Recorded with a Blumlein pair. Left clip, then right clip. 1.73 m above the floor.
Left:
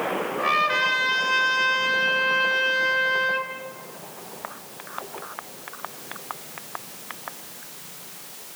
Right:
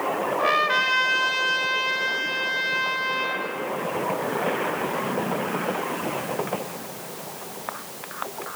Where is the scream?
No scream in this recording.